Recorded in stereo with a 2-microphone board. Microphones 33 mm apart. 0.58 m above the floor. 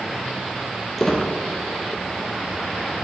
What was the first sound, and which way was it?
A squeak, 5° left (ahead or behind).